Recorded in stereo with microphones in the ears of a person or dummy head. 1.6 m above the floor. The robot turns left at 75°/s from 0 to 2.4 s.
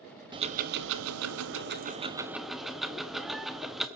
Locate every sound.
0.3 s ticking: 25° right, 0.8 m; by 3.9 s straight behind, 0.8 m